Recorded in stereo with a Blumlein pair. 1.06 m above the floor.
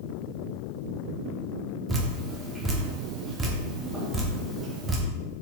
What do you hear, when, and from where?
1.9 s dripping: 10° right, 0.5 m